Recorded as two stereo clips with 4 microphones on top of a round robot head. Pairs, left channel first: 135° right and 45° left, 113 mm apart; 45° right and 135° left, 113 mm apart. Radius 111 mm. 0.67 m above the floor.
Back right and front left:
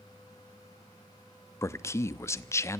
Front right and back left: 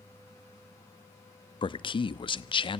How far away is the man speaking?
About 0.8 m.